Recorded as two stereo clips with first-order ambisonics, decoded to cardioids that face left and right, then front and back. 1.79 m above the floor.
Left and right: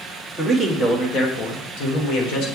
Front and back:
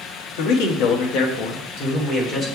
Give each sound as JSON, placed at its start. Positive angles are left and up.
{"t": 0.4, "sound": "a man speaking", "azimuth_deg": 5, "distance_m": 1.3}